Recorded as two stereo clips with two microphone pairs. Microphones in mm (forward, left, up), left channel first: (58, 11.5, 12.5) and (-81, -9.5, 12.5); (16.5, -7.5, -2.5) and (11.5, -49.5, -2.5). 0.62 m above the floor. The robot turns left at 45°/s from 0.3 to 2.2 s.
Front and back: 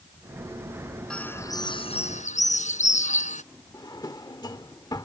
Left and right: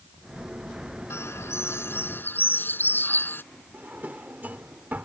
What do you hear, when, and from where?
1.1 s a bird: 95° left; by 3.4 s 45° left
3.7 s a drawer: 55° right